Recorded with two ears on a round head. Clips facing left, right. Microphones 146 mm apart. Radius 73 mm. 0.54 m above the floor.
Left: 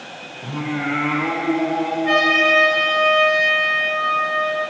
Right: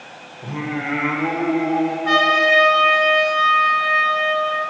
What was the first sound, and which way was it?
Singing, 20° right (ahead or behind).